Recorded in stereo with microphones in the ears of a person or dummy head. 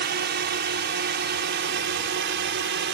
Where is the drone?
45° right (ahead or behind); by 3.0 s 55° right (ahead or behind).